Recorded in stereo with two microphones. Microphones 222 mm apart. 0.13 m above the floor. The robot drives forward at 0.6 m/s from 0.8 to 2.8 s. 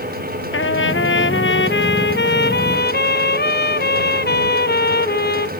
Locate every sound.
0.5 s a trumpet: 65° left (ahead or behind); by 5.5 s 45° left (ahead or behind)